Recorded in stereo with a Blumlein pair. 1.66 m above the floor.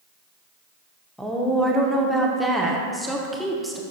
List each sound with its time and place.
1.2 s a woman speaking: straight ahead, 0.9 m